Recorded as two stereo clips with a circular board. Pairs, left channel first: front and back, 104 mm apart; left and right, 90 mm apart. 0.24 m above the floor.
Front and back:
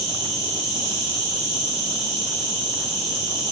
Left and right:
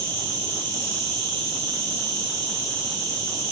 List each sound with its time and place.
0.0 s an insect: 145° left, 3 m